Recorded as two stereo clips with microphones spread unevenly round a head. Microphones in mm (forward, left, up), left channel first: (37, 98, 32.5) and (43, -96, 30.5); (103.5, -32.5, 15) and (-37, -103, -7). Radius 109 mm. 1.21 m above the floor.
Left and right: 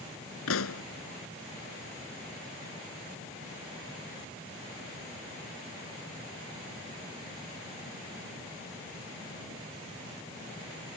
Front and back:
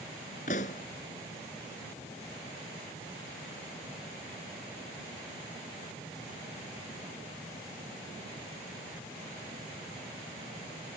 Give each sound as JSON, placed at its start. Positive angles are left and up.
{"t": 0.5, "sound": "a pop", "azimuth_deg": 85}